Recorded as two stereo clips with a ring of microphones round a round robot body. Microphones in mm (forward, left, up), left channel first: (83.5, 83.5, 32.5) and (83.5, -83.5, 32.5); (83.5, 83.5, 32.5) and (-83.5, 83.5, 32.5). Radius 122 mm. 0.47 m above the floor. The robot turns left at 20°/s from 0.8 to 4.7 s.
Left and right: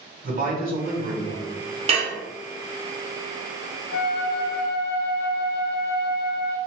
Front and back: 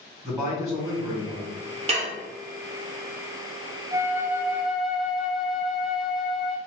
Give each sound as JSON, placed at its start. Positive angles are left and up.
{"t": 0.2, "sound": "a man speaking", "azimuth_deg": -90, "distance_m": 1.9}
{"t": 1.9, "sound": "dishes clattering", "azimuth_deg": -135, "distance_m": 0.5}
{"t": 3.9, "sound": "a flute", "azimuth_deg": 110, "distance_m": 0.5}